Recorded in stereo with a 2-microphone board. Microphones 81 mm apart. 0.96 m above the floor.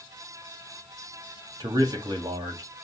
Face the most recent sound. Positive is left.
turn(degrees=-65)  # may be behind; listen again after turning